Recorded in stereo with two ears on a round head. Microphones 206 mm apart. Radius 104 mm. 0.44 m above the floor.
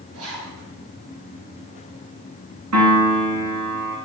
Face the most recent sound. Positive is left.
turn(degrees=-75)  # may be behind; listen again after turning